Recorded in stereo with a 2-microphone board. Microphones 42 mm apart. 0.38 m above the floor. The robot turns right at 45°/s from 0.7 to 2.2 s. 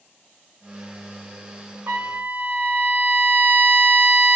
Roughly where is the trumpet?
Right.